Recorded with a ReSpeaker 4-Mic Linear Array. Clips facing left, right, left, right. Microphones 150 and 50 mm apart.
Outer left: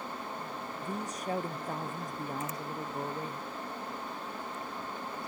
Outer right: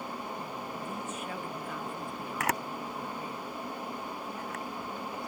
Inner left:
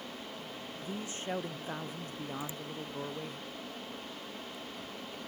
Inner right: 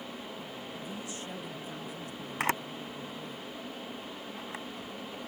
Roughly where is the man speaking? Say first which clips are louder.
Outer left 1 dB, inner left 5 dB; left.